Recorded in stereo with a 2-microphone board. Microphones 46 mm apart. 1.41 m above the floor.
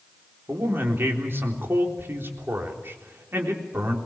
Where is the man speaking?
55° right (ahead or behind), 3.5 m.